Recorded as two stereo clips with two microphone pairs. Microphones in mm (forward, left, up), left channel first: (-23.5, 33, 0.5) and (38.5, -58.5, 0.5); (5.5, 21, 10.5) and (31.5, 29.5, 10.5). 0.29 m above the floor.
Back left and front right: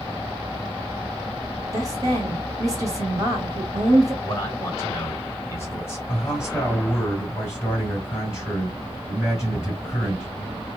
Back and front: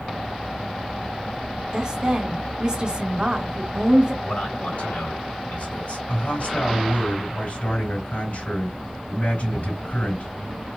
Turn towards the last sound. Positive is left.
turn(degrees=-175)